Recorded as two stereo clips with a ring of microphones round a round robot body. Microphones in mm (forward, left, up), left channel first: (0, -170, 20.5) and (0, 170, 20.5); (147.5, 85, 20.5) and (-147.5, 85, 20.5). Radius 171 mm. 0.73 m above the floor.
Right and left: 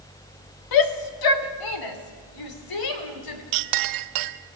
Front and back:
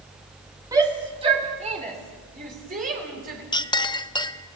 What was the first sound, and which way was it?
A shout, 100° right.